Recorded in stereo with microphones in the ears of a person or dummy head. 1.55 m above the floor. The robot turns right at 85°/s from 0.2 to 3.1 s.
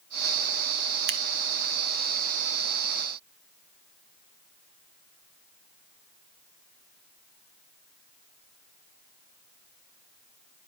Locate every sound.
1.1 s scissors: 60° right (ahead or behind), 0.5 m; by 1.2 s 50° right (ahead or behind), 0.5 m